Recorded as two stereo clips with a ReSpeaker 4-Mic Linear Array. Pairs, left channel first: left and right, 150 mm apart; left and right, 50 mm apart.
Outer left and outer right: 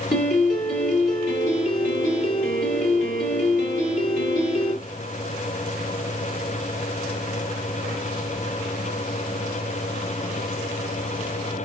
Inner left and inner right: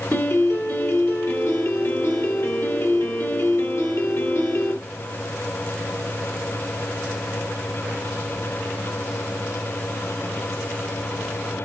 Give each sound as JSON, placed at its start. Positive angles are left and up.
{"t": 0.1, "sound": "a piano", "side_deg": 60, "distance_m": 2.0}